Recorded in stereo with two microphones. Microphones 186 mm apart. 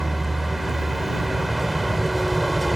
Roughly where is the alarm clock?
I don't hear an alarm clock.